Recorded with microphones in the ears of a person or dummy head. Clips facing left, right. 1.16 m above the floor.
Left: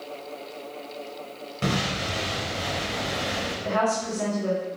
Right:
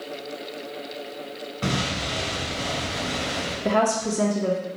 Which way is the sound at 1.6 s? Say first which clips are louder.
Even; 35° left (ahead or behind).